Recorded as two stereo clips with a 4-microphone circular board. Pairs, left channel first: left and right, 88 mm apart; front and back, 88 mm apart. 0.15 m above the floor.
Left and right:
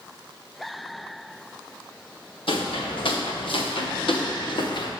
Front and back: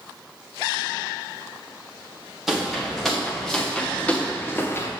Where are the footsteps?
95° left, 3 m; by 4.9 s 60° left, 1.9 m.